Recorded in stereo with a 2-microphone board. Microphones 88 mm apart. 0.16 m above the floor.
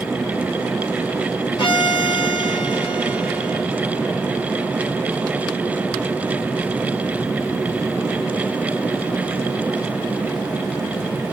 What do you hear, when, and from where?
1.6 s a violin: 75° left (ahead or behind), 1.9 m